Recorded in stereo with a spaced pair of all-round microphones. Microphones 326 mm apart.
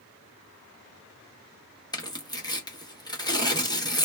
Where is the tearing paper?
15° left (ahead or behind), 0.8 m.